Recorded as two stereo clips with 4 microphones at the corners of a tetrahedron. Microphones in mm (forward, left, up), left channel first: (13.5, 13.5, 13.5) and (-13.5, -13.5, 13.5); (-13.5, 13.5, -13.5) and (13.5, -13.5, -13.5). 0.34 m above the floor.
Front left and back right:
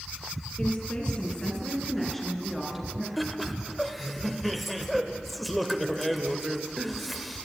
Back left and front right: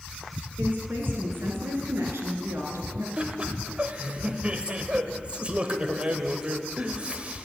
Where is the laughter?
50° right, 0.9 m.